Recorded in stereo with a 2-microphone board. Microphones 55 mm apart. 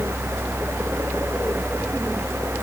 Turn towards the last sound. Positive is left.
No sound to turn to.